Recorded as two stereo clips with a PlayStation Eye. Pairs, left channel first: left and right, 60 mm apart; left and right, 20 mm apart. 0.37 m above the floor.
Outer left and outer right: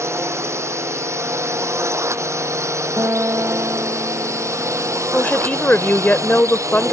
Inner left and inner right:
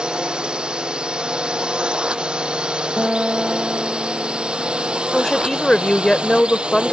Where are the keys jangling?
I don't hear keys jangling.